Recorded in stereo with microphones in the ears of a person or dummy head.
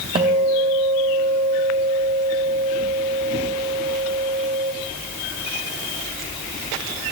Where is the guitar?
20° right (ahead or behind), 1.7 m.